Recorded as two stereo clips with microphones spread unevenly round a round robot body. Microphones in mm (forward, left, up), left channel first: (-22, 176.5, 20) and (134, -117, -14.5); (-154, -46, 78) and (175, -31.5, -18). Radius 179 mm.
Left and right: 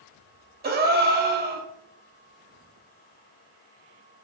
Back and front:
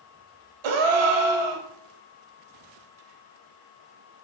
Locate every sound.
0.6 s a gasp: 5° left, 0.7 m